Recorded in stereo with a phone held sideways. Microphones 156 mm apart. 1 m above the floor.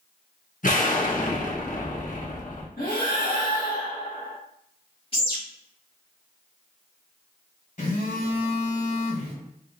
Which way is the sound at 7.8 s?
50° left (ahead or behind).